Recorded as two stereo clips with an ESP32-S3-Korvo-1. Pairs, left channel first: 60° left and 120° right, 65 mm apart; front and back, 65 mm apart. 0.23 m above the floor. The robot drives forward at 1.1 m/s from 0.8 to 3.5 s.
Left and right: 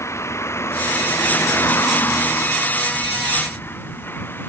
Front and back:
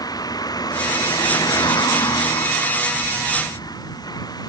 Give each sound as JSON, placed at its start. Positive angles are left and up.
{"t": 0.0, "sound": "a vehicle", "azimuth_deg": 15}